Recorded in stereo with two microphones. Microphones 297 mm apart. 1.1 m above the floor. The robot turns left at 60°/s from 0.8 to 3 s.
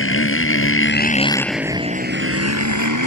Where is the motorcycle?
45° left; by 3.1 s 90° right.